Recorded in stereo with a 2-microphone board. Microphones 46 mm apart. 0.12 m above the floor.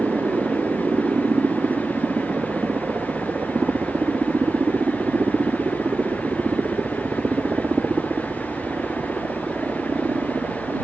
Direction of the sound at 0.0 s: 45° right (ahead or behind).